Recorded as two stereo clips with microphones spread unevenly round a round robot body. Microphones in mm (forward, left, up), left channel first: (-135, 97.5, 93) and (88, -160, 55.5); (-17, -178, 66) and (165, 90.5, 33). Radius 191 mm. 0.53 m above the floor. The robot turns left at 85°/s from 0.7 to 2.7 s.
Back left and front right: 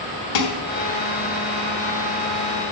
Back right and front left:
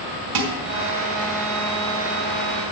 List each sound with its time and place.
0.3 s dishes clattering: 95° left, 1.4 m